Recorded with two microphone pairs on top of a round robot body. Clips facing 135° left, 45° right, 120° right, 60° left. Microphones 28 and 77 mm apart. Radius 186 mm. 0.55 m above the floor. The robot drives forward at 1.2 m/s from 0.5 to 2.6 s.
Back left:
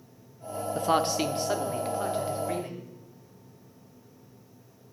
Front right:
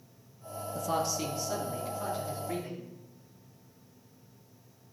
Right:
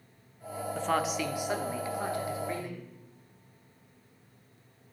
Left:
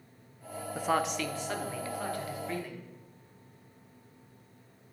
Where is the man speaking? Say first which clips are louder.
Back left 6 dB, even; 135° left, 0.7 m; by 2.9 s 175° left, 2.5 m.